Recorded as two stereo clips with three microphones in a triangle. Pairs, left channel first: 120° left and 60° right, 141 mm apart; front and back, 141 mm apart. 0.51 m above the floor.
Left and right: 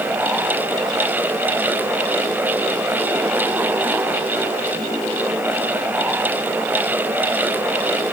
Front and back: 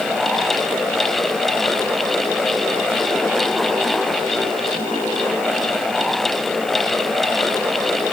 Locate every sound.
Only background noise.